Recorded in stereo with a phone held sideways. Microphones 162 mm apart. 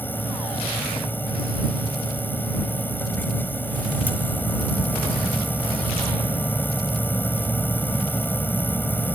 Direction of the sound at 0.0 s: 10° left (ahead or behind).